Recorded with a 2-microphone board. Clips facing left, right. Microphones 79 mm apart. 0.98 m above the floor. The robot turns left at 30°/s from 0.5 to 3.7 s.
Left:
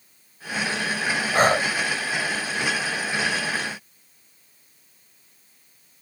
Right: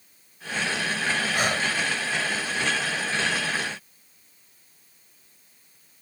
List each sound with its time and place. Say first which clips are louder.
1.3 s breathing: left 11 dB; 45° left (ahead or behind); by 1.7 s 35° left (ahead or behind)